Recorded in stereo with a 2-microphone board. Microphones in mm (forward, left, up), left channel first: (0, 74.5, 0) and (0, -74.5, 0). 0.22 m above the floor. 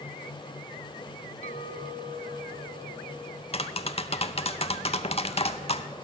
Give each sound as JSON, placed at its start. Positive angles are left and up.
{"t": 1.4, "sound": "a clink", "side_deg": 50, "distance_m": 1.2}
{"t": 3.5, "sound": "tapping", "side_deg": 40, "distance_m": 0.5}